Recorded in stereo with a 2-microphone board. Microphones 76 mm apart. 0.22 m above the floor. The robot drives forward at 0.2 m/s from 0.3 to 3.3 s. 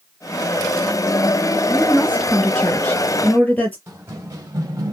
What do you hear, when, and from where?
1.7 s a woman speaking: 25° left (ahead or behind), 2.5 m
3.9 s running footsteps: 35° right (ahead or behind), 2.5 m; by 4.9 s 40° right (ahead or behind), 1.9 m